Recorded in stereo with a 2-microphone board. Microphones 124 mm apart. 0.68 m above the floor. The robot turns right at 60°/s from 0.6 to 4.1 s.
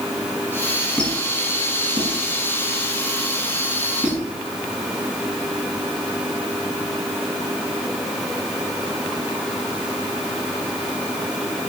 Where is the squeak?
15° left (ahead or behind), 4 m; by 4.2 s 5° right (ahead or behind), 4 m.